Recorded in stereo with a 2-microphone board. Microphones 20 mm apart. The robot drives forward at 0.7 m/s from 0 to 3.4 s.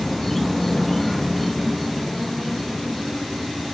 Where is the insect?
10° left (ahead or behind), 0.7 m; by 3.7 s 5° left (ahead or behind), 2.0 m.